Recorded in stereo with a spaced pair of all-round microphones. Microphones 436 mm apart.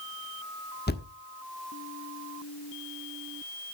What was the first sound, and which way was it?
A thud, 20° left (ahead or behind).